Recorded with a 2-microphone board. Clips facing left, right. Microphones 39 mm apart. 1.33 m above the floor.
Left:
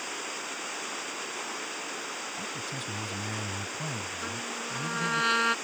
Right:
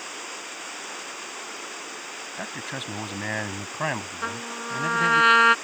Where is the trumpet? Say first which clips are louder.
Right 4 dB; 35° right (ahead or behind).